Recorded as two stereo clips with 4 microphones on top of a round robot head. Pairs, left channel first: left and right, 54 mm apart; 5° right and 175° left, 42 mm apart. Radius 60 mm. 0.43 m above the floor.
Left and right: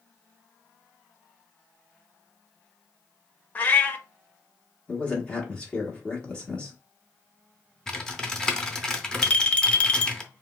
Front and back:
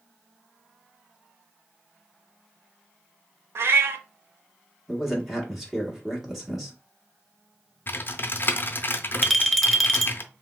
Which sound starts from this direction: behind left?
A cat meowing, at 3.5 s.